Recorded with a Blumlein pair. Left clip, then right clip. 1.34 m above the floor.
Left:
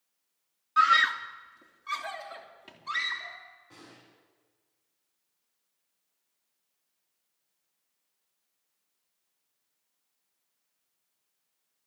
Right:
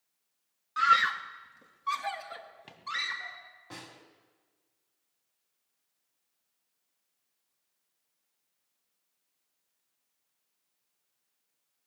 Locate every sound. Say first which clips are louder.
0.8 s a scream: left 2 dB; 5° left, 1.0 m; by 3.4 s 10° right, 5 m
3.7 s a snare drum: right 5 dB; 55° right, 4.5 m